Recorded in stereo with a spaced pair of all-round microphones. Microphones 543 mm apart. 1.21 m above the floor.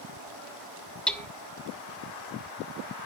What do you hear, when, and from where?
1.1 s hammering: centre (ahead or behind), 1.1 m